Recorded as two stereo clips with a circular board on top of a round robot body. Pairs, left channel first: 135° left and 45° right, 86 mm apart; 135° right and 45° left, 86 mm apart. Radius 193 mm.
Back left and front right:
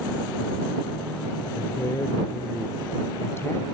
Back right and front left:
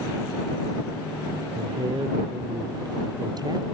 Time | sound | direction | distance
1.6 | a man speaking | 75° left | ?